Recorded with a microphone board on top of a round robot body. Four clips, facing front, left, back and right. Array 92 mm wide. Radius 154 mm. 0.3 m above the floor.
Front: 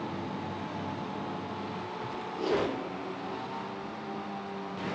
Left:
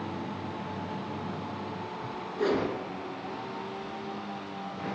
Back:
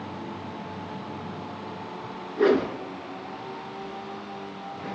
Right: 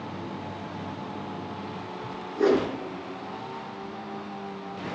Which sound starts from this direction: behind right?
A whoosh, at 2.4 s.